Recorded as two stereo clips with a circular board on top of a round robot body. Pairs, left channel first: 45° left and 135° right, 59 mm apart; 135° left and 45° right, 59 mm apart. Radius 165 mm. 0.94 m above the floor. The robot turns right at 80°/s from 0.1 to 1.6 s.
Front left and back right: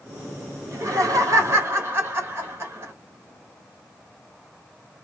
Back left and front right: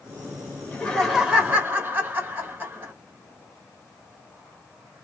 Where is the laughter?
Straight behind, 1.3 m; by 2.9 s 105° right, 1.3 m.